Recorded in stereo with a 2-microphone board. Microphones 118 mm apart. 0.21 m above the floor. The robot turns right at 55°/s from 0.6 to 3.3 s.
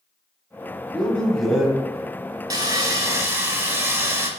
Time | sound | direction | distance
0.9 | a man speaking | 10° left (ahead or behind) | 1.0 m
2.5 | sawing | 90° right | 0.7 m